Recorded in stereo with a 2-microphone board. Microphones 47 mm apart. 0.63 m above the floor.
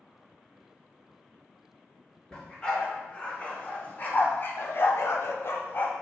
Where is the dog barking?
20° left (ahead or behind), 2.5 m; by 5.9 s 40° left (ahead or behind), 0.9 m.